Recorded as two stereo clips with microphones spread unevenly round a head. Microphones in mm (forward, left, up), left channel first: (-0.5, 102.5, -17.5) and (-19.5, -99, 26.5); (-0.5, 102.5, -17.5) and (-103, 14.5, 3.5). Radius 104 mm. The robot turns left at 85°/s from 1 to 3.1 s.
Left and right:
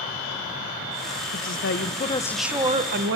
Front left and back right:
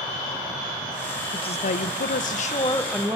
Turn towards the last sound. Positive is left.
turn(degrees=-60)